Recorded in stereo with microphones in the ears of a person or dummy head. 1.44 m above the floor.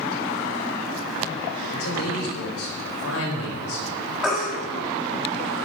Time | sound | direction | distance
1.7 | a man speaking | 85° left | 6.5 m
4.2 | a baby crying | 5° right (ahead or behind) | 5.5 m